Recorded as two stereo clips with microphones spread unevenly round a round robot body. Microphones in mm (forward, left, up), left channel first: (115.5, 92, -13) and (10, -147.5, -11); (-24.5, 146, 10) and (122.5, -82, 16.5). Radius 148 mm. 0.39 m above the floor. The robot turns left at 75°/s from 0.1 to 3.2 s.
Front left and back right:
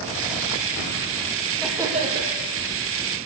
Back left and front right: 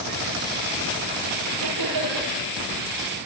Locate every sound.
1.6 s laughter: 20° right, 9.5 m; by 2.3 s 70° right, 9.5 m